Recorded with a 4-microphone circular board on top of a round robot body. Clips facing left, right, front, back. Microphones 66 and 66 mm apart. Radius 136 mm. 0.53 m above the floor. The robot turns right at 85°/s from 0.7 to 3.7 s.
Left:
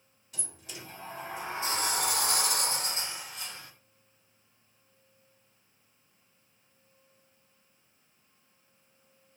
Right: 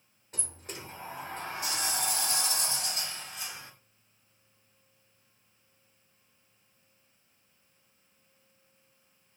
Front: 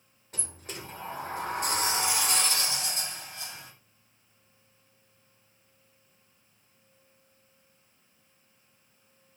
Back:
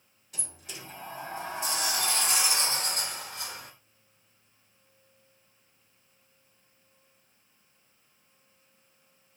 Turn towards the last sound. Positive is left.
turn(degrees=-150)